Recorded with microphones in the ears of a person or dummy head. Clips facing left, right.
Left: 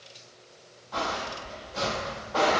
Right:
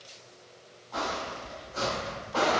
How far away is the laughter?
I don't hear laughter.